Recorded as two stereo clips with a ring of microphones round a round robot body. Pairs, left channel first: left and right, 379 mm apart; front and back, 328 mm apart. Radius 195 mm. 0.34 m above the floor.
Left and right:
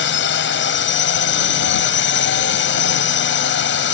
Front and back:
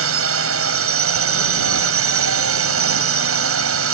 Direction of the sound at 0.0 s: 145° left.